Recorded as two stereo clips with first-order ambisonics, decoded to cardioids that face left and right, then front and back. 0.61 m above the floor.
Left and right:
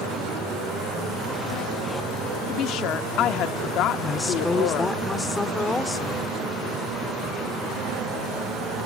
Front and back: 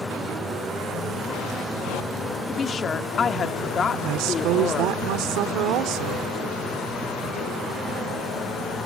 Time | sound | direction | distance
2.5 | a woman speaking | 60° left | 0.9 m
4.0 | a woman speaking | 170° left | 1.7 m